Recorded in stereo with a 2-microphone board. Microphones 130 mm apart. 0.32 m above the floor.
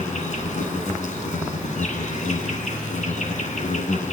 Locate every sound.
0.0 s an insect: 70° left (ahead or behind), 3 m